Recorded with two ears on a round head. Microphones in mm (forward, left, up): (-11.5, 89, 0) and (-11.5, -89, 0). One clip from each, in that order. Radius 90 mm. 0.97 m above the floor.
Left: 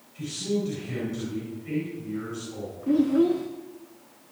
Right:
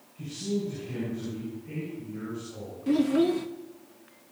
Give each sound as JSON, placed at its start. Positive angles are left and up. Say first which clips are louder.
{"t": 0.1, "sound": "a man speaking", "louder": "left 4 dB", "side_deg": 70, "distance_m": 9.5}
{"t": 2.9, "sound": "a child speaking", "louder": "left 2 dB", "side_deg": -70, "distance_m": 0.8}